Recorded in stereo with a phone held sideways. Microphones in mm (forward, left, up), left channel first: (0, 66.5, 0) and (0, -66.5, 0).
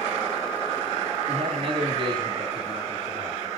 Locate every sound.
1.3 s a man speaking: 60° right (ahead or behind), 3.5 m; by 3.5 s 30° right (ahead or behind), 5.5 m